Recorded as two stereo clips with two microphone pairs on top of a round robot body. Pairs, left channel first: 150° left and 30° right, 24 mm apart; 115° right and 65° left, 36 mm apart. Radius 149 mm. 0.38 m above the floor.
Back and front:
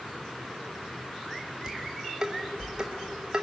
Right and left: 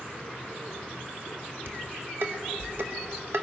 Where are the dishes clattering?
40° left, 1.5 m.